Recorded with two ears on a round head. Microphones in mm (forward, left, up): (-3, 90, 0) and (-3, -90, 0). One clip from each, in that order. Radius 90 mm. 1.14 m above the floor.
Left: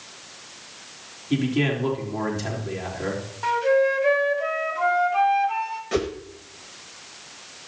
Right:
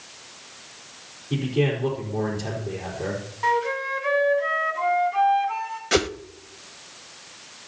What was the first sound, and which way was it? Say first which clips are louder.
A man speaking: even; 50° left (ahead or behind).